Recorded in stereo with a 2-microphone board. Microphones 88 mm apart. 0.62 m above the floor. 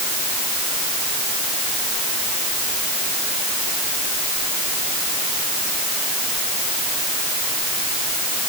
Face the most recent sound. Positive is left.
No sound to turn to.